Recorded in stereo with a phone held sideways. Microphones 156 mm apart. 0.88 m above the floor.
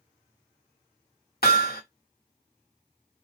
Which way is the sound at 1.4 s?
80° left.